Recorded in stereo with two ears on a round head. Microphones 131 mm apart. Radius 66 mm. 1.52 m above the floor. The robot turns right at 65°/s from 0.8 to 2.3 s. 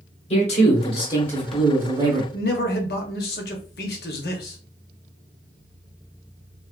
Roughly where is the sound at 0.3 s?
Behind left.